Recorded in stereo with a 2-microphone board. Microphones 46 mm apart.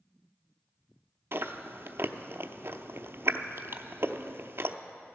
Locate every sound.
1.3 s chewing: 60° right (ahead or behind), 0.6 m